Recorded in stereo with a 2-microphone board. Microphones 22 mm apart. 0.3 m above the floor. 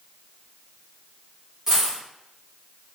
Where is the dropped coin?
20° right (ahead or behind), 1.3 m.